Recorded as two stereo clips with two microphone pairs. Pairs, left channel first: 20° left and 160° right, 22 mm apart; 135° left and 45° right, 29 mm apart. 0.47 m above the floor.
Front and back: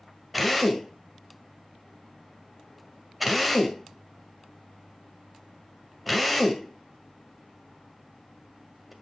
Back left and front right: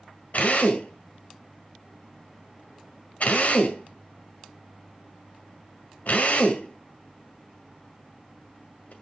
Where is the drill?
115° left, 1.9 m.